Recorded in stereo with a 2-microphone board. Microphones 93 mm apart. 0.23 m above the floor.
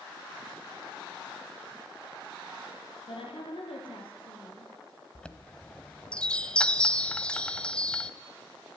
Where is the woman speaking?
70° left (ahead or behind), 4.5 m.